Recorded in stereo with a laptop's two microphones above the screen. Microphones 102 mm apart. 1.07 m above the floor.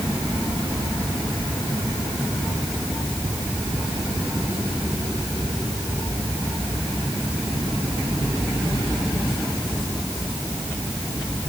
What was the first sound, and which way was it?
Only background noise.